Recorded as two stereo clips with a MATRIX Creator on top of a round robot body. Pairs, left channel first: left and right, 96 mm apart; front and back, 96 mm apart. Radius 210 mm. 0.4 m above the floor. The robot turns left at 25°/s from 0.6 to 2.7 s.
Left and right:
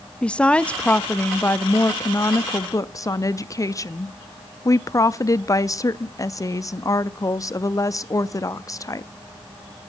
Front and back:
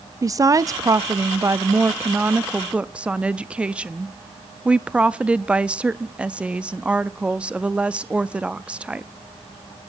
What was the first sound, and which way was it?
A woman speaking, 160° left.